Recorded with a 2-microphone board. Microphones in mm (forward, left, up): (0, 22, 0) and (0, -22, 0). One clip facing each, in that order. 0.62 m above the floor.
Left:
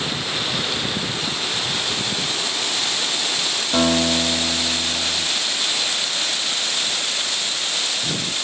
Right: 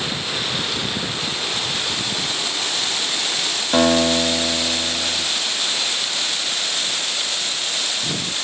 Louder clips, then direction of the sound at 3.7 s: Right 3 dB; 45° right (ahead or behind).